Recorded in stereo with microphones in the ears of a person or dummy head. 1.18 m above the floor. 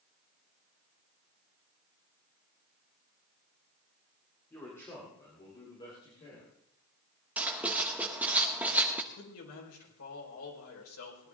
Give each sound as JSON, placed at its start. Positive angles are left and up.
{"t": 4.5, "sound": "a man speaking", "side_deg": 10, "distance_m": 3.0}
{"t": 7.4, "sound": "writing", "side_deg": -5, "distance_m": 1.2}
{"t": 9.1, "sound": "a man speaking", "side_deg": 85, "distance_m": 4.5}